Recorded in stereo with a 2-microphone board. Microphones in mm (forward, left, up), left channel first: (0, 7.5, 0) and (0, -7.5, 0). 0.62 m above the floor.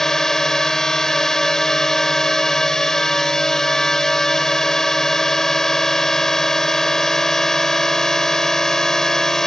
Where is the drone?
30° left (ahead or behind).